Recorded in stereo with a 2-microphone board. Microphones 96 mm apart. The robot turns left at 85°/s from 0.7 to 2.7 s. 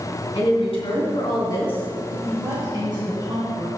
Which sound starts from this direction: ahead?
A woman speaking, at 2.3 s.